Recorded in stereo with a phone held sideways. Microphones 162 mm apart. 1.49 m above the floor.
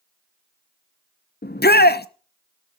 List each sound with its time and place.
1.4 s a shout: 80° left, 0.9 m